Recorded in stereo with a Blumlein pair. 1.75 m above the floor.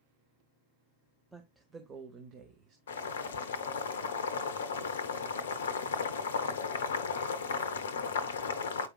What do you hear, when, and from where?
1.3 s a woman speaking: straight ahead, 1.0 m; by 2.8 s 45° right, 1.4 m
2.9 s boiling: 65° left, 0.7 m